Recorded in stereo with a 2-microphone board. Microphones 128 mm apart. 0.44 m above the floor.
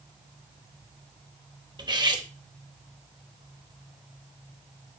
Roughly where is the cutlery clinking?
Right.